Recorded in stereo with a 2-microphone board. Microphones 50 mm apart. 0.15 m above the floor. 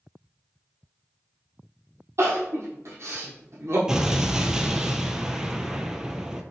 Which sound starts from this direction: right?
Crying, at 2.2 s.